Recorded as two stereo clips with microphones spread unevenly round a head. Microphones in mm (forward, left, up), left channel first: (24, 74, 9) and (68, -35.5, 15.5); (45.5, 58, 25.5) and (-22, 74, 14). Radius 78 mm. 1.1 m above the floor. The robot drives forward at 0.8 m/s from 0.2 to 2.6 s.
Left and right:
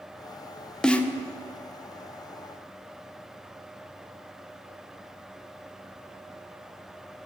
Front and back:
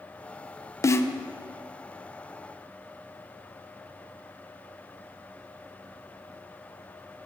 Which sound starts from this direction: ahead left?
A snare drum, at 0.8 s.